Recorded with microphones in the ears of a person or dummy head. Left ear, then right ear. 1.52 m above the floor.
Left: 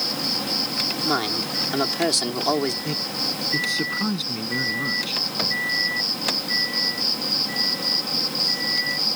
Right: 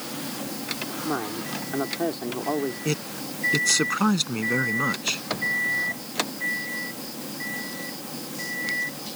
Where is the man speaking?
30° right (ahead or behind).